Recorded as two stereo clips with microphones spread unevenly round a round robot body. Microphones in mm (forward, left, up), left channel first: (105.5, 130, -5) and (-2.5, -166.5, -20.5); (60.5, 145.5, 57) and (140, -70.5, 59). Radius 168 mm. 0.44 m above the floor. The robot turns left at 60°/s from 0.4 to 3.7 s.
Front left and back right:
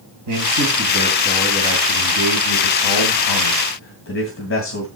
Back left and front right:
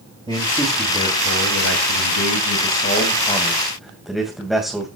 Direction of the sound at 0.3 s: 145° right.